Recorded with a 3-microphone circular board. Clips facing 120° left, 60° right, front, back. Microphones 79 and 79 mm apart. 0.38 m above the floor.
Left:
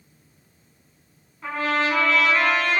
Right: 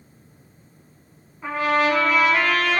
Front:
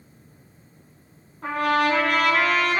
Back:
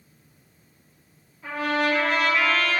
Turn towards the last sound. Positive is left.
turn(degrees=20)